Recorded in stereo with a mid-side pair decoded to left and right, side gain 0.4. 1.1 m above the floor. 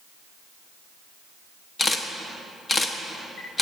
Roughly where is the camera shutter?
Ahead left.